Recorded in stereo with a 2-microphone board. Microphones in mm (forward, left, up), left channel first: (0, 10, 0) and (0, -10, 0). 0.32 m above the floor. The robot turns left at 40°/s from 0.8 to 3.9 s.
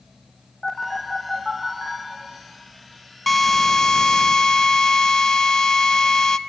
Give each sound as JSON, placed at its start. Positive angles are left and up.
{"t": 0.6, "sound": "a phone buzzing", "side_deg": 5, "distance_m": 6.0}
{"t": 3.3, "sound": "a drill", "side_deg": 5, "distance_m": 0.6}